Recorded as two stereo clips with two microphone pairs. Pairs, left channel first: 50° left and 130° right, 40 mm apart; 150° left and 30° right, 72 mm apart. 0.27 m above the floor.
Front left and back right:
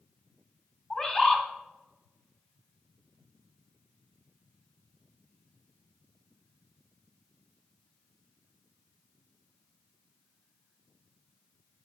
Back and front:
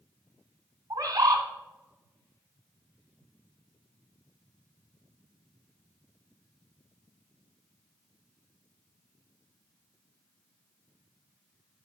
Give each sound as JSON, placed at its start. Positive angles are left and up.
{"t": 0.9, "sound": "a bird", "azimuth_deg": -15, "distance_m": 1.5}